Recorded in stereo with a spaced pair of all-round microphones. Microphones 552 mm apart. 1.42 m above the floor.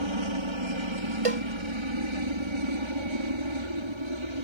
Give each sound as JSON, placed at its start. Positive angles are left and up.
{"t": 0.0, "sound": "a helicopter", "side_deg": -55}
{"t": 1.2, "sound": "a cowbell", "side_deg": -75}